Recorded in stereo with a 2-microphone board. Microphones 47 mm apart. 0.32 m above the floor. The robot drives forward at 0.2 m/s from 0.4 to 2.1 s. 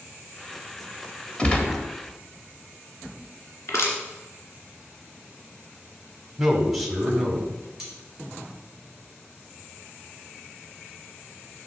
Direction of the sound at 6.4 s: 5° right (ahead or behind).